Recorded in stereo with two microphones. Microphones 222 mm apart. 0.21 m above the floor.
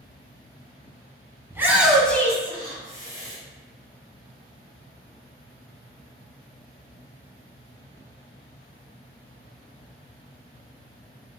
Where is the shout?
10° right (ahead or behind), 1.5 m; by 3.4 s 30° left (ahead or behind), 1.8 m.